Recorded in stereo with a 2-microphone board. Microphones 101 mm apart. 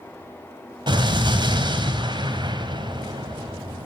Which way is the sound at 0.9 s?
50° right (ahead or behind).